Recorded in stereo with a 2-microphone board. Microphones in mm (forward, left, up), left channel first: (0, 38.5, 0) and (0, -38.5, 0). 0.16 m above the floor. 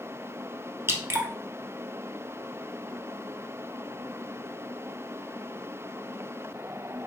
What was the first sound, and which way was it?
Dripping, 35° right (ahead or behind).